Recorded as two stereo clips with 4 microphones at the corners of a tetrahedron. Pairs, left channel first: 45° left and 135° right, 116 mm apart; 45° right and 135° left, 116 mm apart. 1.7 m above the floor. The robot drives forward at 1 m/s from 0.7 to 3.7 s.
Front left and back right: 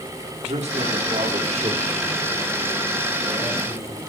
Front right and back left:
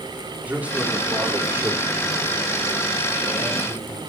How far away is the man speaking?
About 3.5 m.